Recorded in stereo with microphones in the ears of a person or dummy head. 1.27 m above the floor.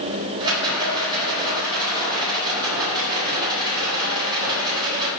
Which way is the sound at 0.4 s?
20° right (ahead or behind).